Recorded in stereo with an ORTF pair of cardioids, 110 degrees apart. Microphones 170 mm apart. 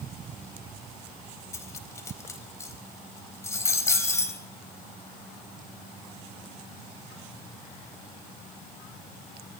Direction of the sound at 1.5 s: 15° left.